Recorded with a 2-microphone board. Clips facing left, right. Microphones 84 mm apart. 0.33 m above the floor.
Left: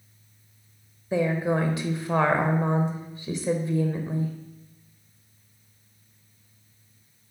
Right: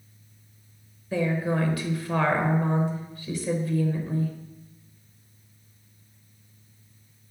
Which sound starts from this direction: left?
A woman speaking, at 1.1 s.